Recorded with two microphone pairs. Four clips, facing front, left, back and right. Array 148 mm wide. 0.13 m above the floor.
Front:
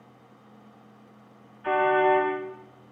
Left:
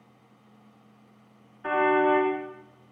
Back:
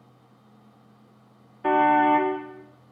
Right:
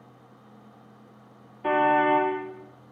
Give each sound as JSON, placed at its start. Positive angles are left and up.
{"t": 1.6, "sound": "a car horn", "azimuth_deg": -160, "distance_m": 5.0}